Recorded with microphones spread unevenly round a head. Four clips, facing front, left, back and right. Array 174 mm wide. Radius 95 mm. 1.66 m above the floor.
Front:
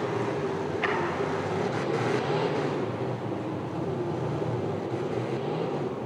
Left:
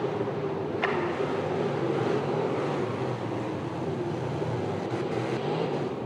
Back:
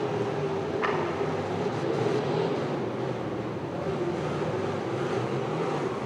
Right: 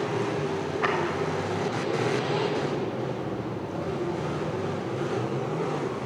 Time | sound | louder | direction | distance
0.8 | a clap | right 2 dB, even | 95° left | 3.5 m